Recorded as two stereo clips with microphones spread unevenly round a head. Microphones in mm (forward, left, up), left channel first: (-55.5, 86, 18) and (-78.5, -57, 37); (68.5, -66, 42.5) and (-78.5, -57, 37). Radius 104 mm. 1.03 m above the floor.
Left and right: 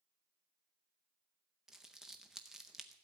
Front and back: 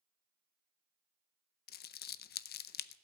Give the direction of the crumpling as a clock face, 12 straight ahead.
12 o'clock.